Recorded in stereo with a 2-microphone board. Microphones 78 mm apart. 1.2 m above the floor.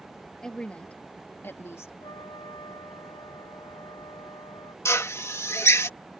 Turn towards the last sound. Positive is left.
turn(degrees=35)  # may be behind; listen again after turning